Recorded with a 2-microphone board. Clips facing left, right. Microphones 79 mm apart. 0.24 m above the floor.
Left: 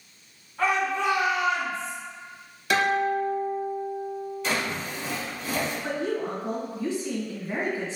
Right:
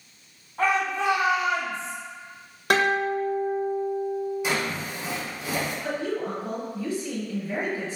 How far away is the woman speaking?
About 1.1 m.